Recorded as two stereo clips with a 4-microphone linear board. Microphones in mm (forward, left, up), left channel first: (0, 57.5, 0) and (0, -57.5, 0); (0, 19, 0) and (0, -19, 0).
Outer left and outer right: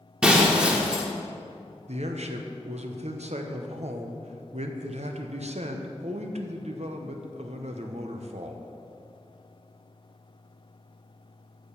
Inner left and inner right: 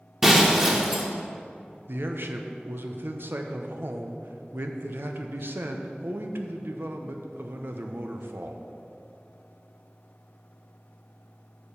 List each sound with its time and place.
0.2 s breaking glass: 10° right (ahead or behind), 1.3 m
1.9 s a man speaking: 70° right (ahead or behind), 0.8 m